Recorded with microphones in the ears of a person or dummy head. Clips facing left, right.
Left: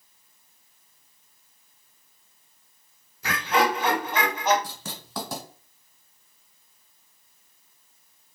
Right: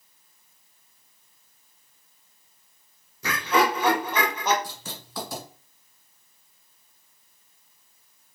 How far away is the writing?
About 1.7 m.